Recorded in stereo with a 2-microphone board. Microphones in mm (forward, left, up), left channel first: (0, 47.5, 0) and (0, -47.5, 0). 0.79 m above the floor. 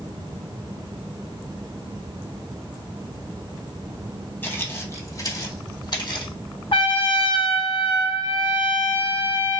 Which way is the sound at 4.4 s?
20° left (ahead or behind).